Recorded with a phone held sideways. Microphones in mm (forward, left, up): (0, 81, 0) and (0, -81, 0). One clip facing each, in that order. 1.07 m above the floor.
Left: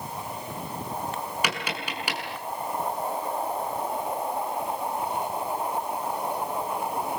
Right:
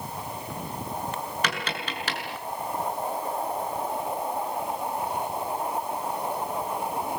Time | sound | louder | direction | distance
1.4 | tapping | even | 10° left (ahead or behind) | 6.5 m